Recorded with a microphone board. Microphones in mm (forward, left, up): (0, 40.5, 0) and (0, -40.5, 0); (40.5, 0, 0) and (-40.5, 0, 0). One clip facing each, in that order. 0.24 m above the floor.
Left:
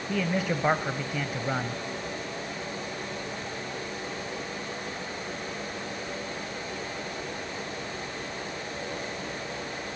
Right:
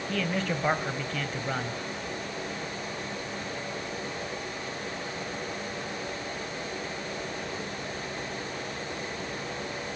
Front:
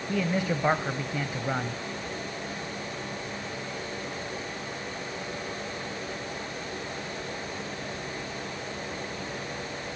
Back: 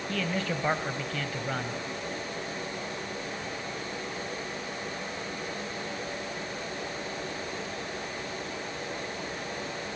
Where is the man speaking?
30° left, 0.9 m.